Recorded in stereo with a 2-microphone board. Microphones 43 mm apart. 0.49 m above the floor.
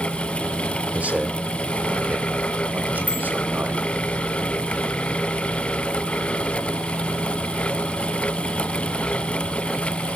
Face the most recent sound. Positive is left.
turn(degrees=-35)  # may be behind; listen again after turning